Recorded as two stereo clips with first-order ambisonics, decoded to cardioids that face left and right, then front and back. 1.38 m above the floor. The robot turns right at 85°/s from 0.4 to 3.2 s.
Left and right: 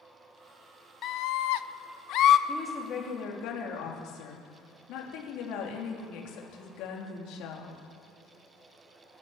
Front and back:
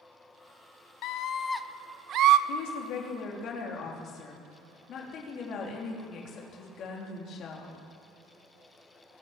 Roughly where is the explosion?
No explosion in this recording.